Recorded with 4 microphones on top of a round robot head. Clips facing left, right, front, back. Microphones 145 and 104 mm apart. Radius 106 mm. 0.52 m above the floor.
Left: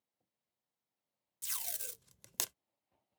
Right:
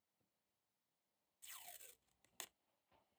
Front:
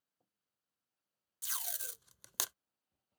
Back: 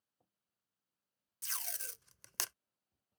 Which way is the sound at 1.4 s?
80° left.